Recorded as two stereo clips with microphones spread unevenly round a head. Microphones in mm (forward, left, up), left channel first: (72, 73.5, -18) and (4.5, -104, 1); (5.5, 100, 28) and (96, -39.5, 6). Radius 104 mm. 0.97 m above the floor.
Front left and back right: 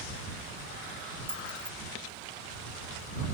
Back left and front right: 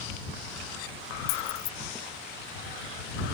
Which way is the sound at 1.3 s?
155° left.